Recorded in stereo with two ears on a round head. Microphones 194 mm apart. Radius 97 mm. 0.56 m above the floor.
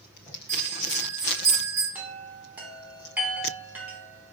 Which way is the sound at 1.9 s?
10° right (ahead or behind).